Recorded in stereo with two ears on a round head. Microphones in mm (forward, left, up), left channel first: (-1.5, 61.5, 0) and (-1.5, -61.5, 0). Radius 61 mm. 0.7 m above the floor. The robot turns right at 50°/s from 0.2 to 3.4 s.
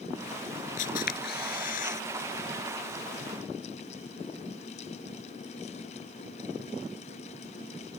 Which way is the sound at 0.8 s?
60° left.